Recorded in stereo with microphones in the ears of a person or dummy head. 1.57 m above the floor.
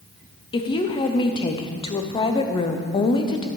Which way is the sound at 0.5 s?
25° left (ahead or behind).